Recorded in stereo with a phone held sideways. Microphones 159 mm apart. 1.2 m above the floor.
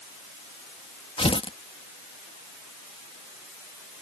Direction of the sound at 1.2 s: 35° left (ahead or behind).